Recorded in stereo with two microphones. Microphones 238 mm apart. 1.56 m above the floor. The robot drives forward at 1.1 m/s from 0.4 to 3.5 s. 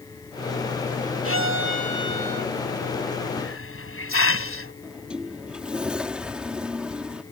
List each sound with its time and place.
1.2 s a violin: 60° right (ahead or behind); by 2.5 s 35° right (ahead or behind)
3.4 s a hiss: 60° left (ahead or behind); by 4.7 s 55° left (ahead or behind)
4.8 s a sliding door: 5° right (ahead or behind)